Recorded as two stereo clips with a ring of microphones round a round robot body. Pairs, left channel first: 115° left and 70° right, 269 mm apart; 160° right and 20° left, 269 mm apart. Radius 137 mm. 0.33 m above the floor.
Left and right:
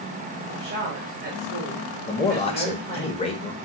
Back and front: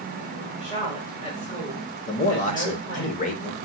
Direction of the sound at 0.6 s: 100° right.